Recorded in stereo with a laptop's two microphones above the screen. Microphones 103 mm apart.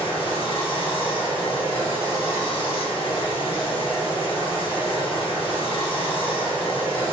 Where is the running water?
65° left (ahead or behind), 1.7 m.